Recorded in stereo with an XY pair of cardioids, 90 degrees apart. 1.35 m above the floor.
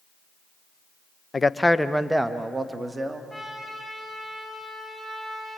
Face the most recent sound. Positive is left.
turn(degrees=-15)